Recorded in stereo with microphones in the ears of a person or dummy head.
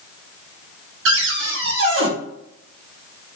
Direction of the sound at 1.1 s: 75° right (ahead or behind).